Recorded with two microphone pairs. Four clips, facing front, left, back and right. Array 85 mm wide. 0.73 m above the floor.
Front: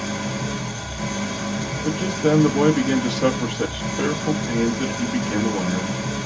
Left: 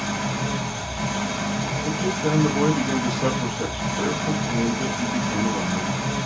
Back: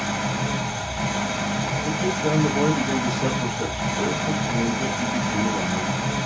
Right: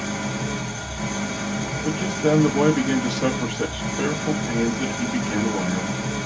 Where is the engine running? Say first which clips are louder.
Left 1 dB, back 1 dB; 165° left, 1.6 m.